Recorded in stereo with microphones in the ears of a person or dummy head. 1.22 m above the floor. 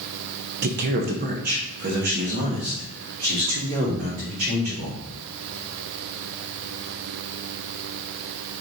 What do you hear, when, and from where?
0.6 s a man speaking: 55° right (ahead or behind), 0.7 m; by 5.0 s 50° right (ahead or behind), 3.5 m